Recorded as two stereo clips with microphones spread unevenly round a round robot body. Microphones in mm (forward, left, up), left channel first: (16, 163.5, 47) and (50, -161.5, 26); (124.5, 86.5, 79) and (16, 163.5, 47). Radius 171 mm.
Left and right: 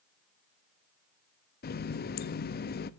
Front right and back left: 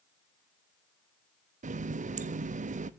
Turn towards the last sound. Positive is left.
turn(degrees=160)